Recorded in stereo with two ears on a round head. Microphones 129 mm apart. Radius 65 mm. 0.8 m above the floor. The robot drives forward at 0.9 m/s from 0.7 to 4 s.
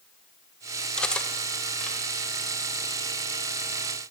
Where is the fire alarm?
No fire alarm in this recording.